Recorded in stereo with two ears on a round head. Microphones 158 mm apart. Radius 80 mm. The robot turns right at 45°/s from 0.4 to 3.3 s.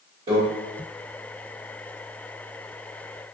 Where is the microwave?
35° right (ahead or behind), 1.5 m.